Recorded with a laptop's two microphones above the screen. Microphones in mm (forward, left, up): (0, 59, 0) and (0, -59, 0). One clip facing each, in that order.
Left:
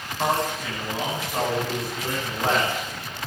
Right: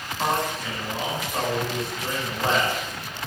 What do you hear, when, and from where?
0.2 s a man speaking: 5° left (ahead or behind), 10 m